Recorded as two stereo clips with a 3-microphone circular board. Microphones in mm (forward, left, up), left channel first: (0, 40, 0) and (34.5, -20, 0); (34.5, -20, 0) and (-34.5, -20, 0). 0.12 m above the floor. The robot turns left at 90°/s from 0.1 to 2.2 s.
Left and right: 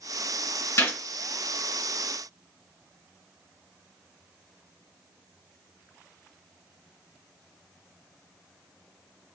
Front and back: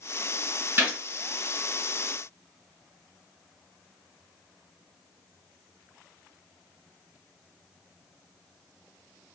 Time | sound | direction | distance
0.8 | a gunshot | 140° left | 2 m